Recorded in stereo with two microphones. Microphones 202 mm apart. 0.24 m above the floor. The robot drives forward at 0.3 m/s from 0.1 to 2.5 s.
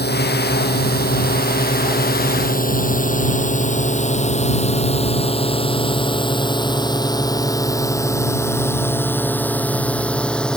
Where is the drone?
55° left (ahead or behind); by 10.6 s 5° left (ahead or behind).